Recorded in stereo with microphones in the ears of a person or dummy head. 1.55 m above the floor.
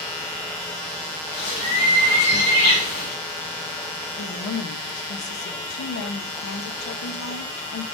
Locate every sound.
1.3 s a bird: 45° left (ahead or behind), 2 m
4.2 s a woman speaking: 85° left, 0.6 m